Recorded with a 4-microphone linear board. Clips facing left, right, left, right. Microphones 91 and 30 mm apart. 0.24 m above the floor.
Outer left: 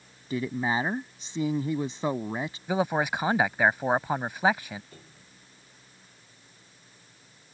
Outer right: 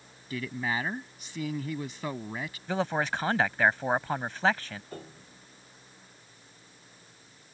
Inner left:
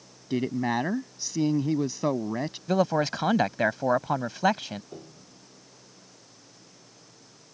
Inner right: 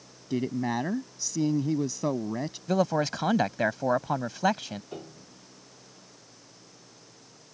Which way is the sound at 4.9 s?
55° right (ahead or behind).